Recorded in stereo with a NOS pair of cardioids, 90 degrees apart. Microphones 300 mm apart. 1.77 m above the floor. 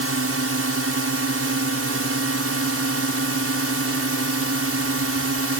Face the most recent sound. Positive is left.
turn(degrees=-50)